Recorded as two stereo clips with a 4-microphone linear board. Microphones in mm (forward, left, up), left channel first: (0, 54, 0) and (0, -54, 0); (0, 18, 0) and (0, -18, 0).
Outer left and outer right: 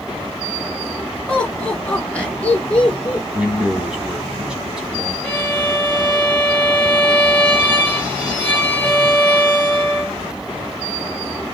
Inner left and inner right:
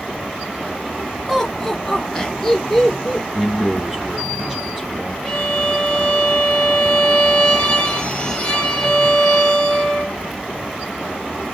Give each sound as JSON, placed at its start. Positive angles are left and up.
{"t": 1.3, "sound": "laughter", "side_deg": 10, "distance_m": 2.0}
{"t": 3.3, "sound": "a man speaking", "side_deg": -5, "distance_m": 1.1}
{"t": 5.2, "sound": "a violin", "side_deg": 15, "distance_m": 2.0}